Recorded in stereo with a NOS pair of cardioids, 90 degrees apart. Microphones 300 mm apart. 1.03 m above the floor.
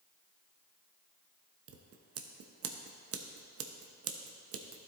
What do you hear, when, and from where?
1.7 s scissors: 50° right, 0.8 m